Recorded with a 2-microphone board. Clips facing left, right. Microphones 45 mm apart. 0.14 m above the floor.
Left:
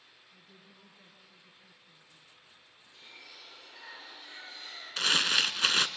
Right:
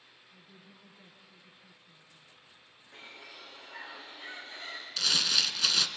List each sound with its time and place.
0.3 s a woman speaking: centre (ahead or behind), 2 m
2.9 s a bird: 45° right (ahead or behind), 7.5 m
5.0 s crumpling: 35° left (ahead or behind), 0.9 m